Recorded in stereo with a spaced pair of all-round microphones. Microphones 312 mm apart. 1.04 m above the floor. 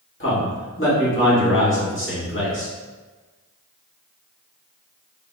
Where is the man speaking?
40° left (ahead or behind), 2 m.